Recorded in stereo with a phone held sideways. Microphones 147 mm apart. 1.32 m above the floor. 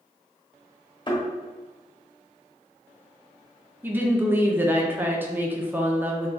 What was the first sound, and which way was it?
A thud, 30° left (ahead or behind).